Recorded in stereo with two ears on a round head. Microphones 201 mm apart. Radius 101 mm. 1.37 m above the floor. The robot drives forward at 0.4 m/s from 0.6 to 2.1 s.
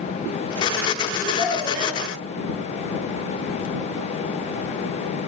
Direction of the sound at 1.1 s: 35° left (ahead or behind).